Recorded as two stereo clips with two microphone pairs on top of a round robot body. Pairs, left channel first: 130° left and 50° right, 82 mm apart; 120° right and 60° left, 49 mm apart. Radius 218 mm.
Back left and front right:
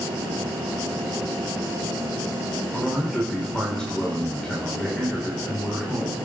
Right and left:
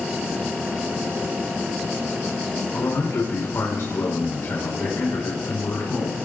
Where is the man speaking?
150° right, 4 m.